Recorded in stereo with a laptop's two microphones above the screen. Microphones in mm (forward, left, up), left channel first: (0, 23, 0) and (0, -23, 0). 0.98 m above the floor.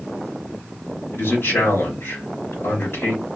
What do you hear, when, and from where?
1.1 s a man speaking: 65° left (ahead or behind), 4 m